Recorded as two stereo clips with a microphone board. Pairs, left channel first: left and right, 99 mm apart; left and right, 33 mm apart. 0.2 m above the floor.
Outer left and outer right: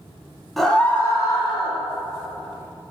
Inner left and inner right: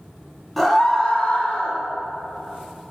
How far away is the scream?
About 1.1 m.